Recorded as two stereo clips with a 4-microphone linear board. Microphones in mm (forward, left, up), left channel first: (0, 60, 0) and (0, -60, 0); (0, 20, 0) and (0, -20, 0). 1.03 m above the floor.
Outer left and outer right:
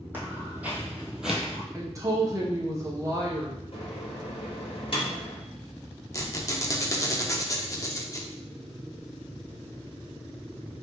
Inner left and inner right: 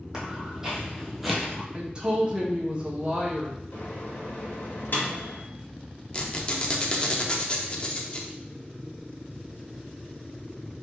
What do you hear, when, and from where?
0.1 s footsteps: 15° right (ahead or behind), 1.6 m; by 1.6 s centre (ahead or behind), 1.1 m
1.7 s a woman speaking: 30° right (ahead or behind), 1.2 m
3.7 s a microwave: 55° left (ahead or behind), 1.2 m
6.1 s a squeak: 30° left (ahead or behind), 0.6 m